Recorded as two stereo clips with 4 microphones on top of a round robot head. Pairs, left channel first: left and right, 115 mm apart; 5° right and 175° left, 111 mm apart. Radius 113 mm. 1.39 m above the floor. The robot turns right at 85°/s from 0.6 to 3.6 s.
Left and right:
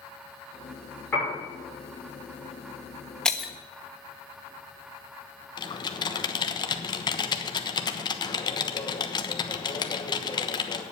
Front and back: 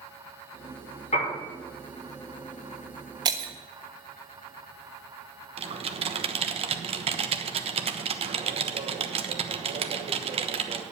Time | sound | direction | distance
1.1 | a piano | 10° left | 6 m
3.2 | breaking glass | 165° left | 0.5 m
5.6 | typing on a keyboard | 140° left | 1.2 m